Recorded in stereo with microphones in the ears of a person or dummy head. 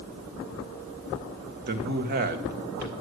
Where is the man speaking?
55° right (ahead or behind), 1.4 m.